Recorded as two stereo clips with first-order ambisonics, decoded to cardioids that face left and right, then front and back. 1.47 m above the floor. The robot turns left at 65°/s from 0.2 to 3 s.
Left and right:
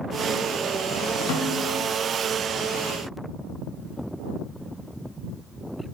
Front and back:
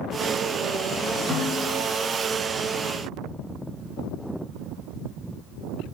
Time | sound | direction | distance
1.3 | a snare drum | 105° left | 4.5 m